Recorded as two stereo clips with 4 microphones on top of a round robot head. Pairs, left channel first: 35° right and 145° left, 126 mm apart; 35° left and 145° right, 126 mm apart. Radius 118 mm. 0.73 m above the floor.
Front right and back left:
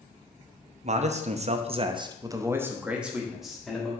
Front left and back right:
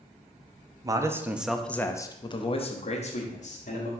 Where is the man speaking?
160° left, 0.8 m; by 3.9 s 50° left, 1.4 m.